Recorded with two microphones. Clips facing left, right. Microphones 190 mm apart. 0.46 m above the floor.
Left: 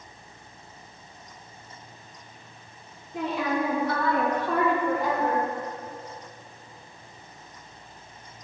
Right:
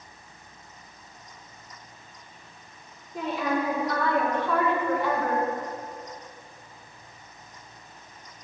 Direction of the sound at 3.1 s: 75° left (ahead or behind).